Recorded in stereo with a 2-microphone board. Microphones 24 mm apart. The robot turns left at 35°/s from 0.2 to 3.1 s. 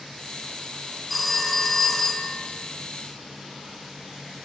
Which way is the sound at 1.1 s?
175° left.